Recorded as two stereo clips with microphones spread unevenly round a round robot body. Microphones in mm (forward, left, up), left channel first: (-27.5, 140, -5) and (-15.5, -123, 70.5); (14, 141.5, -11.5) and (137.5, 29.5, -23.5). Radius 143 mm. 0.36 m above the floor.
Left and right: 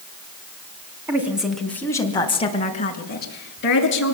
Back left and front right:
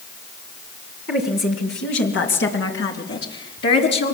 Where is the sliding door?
No sliding door in this recording.